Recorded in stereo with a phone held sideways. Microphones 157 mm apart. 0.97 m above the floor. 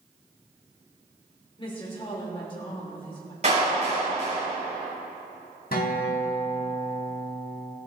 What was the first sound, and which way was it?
A woman speaking, 35° left (ahead or behind).